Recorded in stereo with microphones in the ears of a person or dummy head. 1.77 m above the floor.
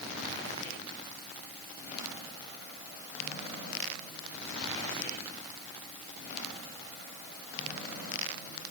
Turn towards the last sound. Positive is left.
No sound to turn to.